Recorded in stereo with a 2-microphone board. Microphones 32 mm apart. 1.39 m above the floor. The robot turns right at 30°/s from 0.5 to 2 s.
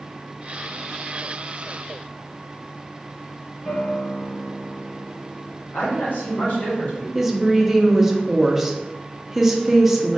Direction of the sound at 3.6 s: 30° left (ahead or behind).